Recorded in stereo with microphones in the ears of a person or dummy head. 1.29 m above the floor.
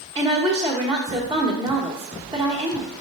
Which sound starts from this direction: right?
A woman speaking, at 0.1 s.